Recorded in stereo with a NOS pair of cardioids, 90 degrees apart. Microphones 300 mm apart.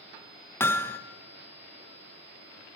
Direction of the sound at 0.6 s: 10° left.